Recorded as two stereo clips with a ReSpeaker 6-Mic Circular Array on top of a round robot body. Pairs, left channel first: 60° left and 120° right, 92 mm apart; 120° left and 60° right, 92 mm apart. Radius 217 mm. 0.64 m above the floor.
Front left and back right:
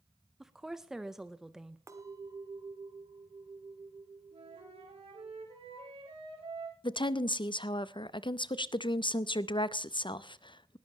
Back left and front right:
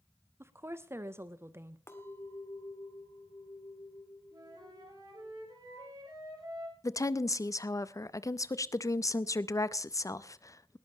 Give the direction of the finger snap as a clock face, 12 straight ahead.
No finger snap in this recording.